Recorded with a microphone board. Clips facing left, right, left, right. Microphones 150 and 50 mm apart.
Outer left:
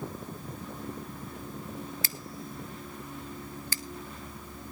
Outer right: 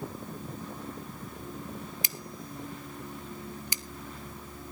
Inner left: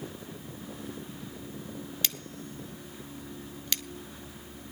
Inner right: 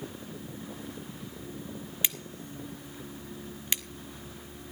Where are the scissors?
20° right (ahead or behind), 0.6 m.